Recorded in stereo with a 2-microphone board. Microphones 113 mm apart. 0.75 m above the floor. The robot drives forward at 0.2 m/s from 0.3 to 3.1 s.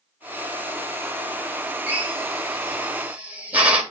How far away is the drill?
About 2.5 m.